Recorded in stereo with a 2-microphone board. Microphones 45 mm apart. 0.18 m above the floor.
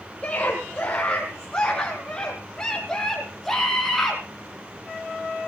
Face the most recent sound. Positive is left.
turn(degrees=0)  # may be behind; listen again after turning